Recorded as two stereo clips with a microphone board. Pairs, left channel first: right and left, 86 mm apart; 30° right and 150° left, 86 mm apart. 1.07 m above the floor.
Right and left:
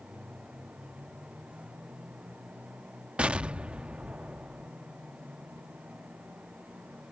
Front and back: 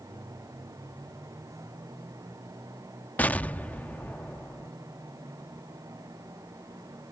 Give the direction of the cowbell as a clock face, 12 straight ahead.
No cowbell in this recording.